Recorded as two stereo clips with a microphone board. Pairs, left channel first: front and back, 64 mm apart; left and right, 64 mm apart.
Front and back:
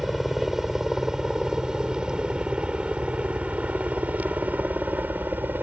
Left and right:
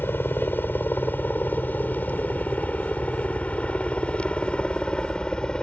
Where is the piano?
I don't hear a piano.